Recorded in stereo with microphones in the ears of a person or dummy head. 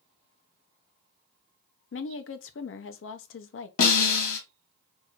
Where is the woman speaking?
60° left (ahead or behind), 0.6 m.